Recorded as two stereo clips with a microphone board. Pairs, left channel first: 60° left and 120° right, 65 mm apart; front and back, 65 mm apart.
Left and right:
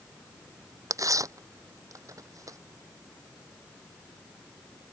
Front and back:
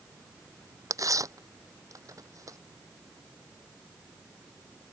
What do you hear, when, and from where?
0.9 s tearing paper: 150° right